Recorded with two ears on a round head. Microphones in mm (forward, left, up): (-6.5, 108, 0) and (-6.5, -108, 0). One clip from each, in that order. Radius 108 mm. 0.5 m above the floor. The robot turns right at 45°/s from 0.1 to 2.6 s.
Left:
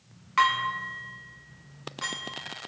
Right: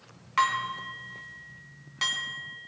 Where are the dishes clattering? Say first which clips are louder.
Left 2 dB; 5° right (ahead or behind), 3 m; by 2.7 s 75° right (ahead or behind), 3 m.